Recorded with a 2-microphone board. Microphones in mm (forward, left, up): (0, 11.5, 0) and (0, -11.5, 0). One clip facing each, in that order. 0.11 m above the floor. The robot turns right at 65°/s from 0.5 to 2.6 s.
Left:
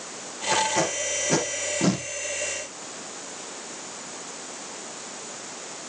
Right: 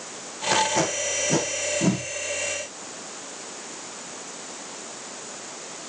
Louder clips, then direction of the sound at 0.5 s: Right 1 dB; 30° right (ahead or behind).